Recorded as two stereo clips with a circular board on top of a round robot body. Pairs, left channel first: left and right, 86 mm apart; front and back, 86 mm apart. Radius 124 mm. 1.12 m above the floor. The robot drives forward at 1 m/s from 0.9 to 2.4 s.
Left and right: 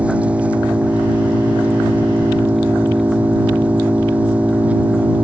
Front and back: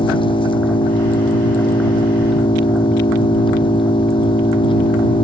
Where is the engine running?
15° right.